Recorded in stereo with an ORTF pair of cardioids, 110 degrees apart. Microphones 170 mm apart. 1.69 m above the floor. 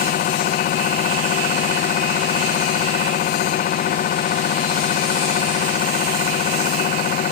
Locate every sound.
0.0 s a machine running: 55° left